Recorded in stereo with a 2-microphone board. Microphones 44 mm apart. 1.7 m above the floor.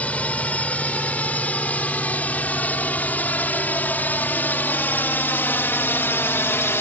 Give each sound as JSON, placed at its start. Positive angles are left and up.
{"t": 0.0, "sound": "a drone", "side_deg": 35}